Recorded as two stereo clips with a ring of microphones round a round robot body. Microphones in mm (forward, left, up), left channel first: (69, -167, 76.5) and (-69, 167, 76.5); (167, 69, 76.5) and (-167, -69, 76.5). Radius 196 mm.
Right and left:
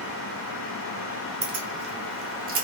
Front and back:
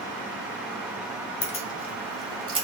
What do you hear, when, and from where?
1.4 s keys jangling: 65° left, 0.9 m; by 2.6 s 150° left, 0.8 m